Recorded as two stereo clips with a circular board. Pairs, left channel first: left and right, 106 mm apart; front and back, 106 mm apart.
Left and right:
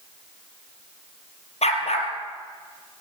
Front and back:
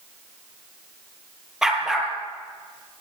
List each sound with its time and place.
1.6 s a dog barking: 95° left, 3 m